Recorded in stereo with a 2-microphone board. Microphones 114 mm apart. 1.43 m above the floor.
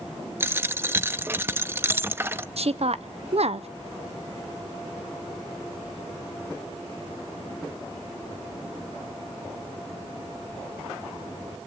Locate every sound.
0.4 s a dropped coin: 20° right (ahead or behind), 0.8 m
2.6 s a woman speaking: 65° right (ahead or behind), 0.8 m